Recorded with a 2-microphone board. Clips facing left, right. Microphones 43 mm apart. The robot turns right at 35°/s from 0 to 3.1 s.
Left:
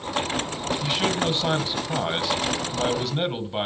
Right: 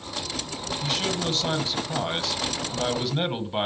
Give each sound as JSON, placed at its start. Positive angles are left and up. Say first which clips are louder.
{"t": 0.8, "sound": "a man speaking", "louder": "left 3 dB", "side_deg": 25, "distance_m": 1.3}